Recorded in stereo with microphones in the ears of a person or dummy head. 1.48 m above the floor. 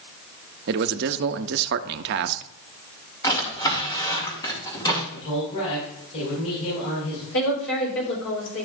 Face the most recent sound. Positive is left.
turn(degrees=75)  # may be behind; listen again after turning